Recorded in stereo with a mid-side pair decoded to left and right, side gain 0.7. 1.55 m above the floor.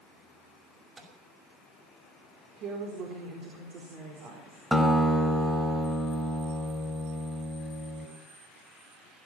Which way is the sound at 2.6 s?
55° right.